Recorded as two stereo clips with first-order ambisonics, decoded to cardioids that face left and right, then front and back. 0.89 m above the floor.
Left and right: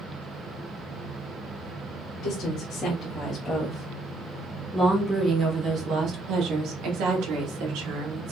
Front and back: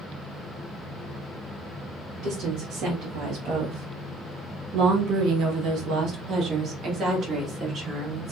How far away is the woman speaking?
About 2.0 m.